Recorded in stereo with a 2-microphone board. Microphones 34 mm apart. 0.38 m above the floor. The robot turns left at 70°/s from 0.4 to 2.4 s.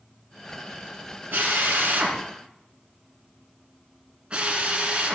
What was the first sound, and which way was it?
A drill, 65° right (ahead or behind).